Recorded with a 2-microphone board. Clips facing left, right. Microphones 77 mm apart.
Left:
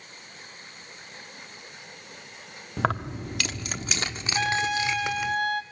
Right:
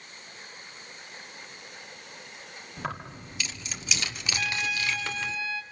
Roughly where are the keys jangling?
Left.